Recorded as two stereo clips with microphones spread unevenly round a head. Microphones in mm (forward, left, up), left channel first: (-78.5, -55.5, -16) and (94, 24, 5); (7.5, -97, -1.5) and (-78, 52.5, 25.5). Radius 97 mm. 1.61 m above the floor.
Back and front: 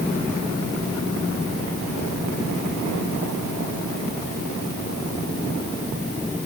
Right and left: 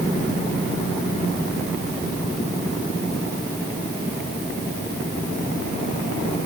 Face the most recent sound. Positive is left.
No sound to turn to.